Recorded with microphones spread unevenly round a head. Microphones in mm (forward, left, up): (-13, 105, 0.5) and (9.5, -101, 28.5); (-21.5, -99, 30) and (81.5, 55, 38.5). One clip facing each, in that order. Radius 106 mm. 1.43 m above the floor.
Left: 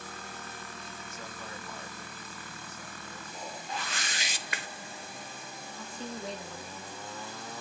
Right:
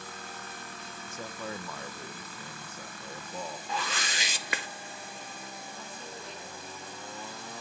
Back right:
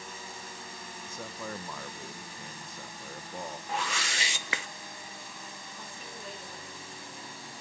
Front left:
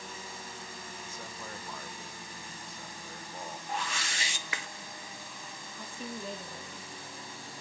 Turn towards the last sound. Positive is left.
turn(degrees=70)